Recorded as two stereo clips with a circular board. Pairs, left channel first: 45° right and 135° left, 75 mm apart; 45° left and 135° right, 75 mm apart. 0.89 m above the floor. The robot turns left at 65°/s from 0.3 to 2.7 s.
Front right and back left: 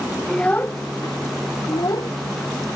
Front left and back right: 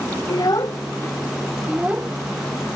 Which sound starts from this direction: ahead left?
A child speaking, at 0.3 s.